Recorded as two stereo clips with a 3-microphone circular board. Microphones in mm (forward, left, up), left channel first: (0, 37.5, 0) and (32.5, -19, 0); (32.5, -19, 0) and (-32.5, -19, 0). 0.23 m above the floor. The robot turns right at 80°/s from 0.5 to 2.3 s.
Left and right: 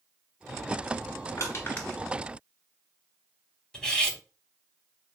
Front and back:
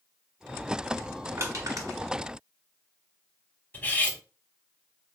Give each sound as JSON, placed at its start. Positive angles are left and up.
{"t": 1.4, "sound": "crushing", "azimuth_deg": 145, "distance_m": 1.2}
{"t": 3.7, "sound": "cutlery clinking", "azimuth_deg": 45, "distance_m": 0.7}